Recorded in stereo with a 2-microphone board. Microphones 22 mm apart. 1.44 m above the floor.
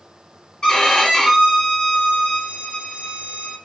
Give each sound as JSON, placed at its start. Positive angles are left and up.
{"t": 0.6, "sound": "a violin", "side_deg": 45, "distance_m": 1.9}